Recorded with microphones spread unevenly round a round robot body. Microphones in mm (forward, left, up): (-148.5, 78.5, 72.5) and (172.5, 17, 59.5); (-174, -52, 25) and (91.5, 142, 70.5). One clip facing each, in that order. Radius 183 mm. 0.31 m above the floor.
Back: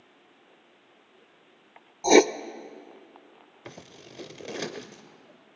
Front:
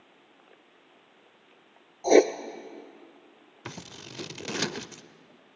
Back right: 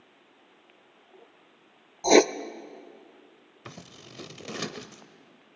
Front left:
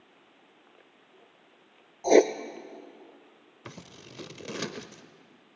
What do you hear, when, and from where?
2.0 s writing: 135° right, 0.6 m
3.6 s scissors: 65° right, 0.5 m